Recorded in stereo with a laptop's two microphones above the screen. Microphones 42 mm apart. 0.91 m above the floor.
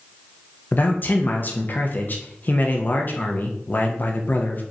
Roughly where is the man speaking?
Left.